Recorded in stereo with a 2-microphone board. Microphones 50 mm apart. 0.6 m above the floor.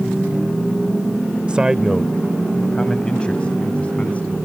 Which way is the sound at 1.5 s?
25° right (ahead or behind).